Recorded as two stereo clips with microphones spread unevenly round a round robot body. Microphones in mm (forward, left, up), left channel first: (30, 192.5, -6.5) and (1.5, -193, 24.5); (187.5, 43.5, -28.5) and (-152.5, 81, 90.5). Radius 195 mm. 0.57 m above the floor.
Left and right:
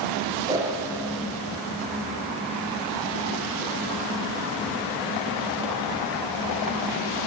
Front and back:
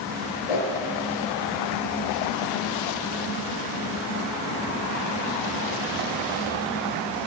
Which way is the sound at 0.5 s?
15° right.